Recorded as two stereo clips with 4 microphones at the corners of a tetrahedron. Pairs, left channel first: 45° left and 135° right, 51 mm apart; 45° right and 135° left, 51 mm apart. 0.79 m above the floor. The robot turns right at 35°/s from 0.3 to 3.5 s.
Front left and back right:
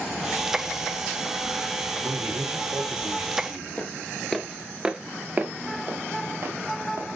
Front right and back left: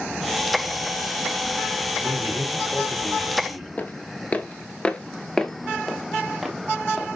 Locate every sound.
2.0 s a man speaking: 170° right, 2 m; by 3.7 s 115° right, 2 m
3.8 s footsteps: 10° right, 0.9 m; by 7.1 s 140° right, 1.5 m